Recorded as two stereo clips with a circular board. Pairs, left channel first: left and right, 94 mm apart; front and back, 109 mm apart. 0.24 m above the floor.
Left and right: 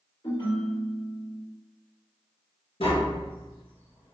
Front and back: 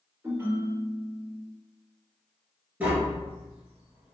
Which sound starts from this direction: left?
Tapping, at 2.8 s.